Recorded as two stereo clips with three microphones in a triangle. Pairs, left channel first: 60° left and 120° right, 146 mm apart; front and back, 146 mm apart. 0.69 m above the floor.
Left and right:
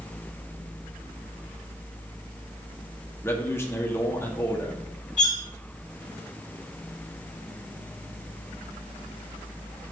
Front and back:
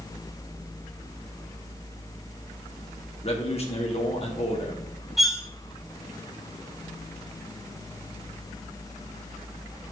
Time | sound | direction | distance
3.2 | a man speaking | 5° right | 1.5 m
5.2 | cutlery clinking | 90° left | 1.3 m